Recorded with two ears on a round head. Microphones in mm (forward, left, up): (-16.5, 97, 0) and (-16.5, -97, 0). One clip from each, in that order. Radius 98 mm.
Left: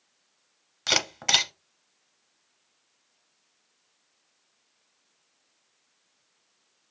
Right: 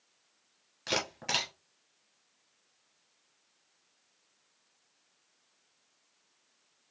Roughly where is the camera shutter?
Left.